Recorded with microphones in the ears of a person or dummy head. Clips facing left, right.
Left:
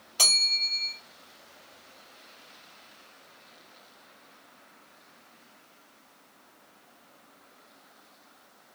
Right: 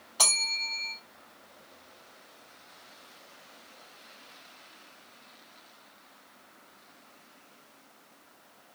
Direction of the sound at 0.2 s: 25° left (ahead or behind).